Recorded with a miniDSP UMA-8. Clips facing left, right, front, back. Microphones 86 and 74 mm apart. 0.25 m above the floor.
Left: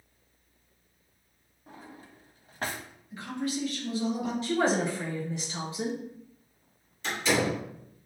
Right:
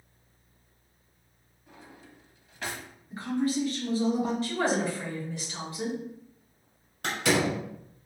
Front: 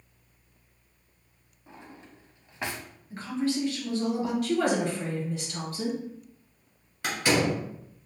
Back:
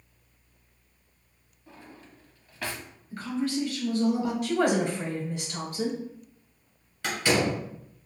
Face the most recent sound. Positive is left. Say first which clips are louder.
# right 1 dB, even
turn(degrees=-70)